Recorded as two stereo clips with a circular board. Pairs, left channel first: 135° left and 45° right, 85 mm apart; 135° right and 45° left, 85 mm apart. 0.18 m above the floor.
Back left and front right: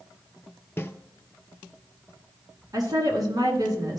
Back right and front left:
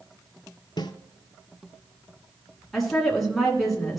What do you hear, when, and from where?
0.8 s a snare drum: 160° right, 0.7 m
2.7 s a woman speaking: 45° right, 2 m